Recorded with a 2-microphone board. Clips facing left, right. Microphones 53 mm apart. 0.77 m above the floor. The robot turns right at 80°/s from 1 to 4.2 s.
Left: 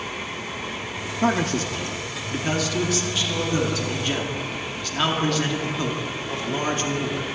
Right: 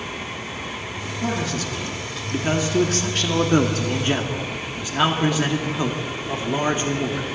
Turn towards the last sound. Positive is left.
turn(degrees=-25)